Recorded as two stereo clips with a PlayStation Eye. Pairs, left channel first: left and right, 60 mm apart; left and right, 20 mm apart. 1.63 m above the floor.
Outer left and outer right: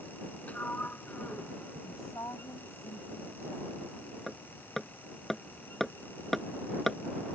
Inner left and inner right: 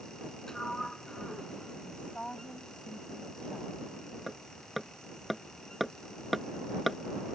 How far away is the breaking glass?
No breaking glass in this recording.